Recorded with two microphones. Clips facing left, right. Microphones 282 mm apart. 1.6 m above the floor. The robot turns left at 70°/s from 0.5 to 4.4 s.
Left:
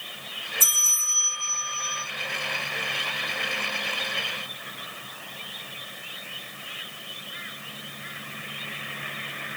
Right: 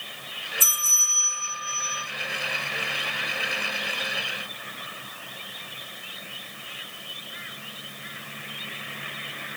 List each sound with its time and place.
0.6 s a bell: 15° right, 1.7 m; by 2.0 s 115° right, 1.7 m